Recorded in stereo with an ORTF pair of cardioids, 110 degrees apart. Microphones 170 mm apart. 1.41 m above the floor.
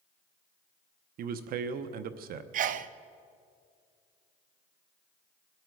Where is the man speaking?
65° right, 0.9 m.